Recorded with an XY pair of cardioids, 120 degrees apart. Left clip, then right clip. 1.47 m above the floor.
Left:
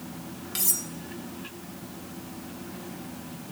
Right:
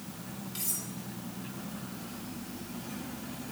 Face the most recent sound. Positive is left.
turn(degrees=55)